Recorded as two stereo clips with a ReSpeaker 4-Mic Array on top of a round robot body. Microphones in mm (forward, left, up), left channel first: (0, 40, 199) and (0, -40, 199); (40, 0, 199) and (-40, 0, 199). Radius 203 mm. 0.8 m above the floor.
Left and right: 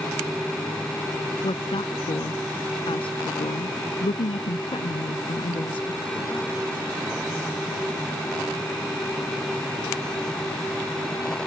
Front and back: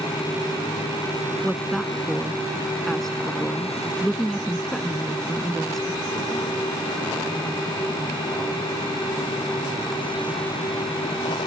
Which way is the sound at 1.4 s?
85° left.